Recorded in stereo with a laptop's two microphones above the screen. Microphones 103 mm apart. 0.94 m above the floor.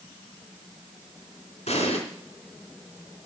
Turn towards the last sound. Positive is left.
turn(degrees=80)